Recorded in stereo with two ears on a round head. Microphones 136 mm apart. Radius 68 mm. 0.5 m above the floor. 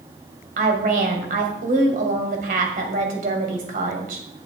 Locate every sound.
0.6 s a woman speaking: 65° right (ahead or behind), 2.5 m